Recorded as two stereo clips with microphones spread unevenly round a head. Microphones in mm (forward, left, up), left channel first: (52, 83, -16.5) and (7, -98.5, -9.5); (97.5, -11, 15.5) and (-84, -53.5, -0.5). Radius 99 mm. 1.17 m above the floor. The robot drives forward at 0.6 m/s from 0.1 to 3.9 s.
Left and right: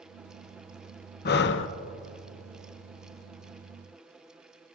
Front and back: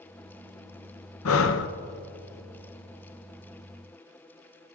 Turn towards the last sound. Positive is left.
turn(degrees=160)